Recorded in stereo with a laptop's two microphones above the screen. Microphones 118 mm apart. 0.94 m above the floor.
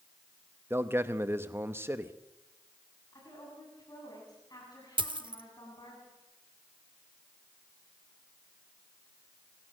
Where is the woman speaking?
35° left (ahead or behind), 8.5 m.